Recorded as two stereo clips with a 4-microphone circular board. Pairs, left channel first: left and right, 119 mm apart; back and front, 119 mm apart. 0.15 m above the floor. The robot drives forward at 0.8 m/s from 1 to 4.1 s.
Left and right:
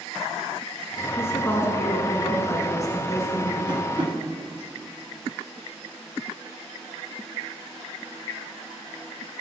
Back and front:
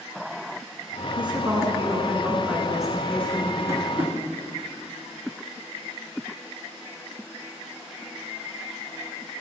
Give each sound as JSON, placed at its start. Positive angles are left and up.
{"t": 1.2, "sound": "a woman speaking", "azimuth_deg": 30, "distance_m": 2.0}
{"t": 3.7, "sound": "tapping", "azimuth_deg": -60, "distance_m": 1.9}